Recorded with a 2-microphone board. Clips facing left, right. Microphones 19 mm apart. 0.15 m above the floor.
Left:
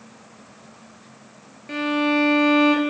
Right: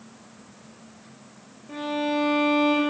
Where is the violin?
65° left (ahead or behind), 0.5 m.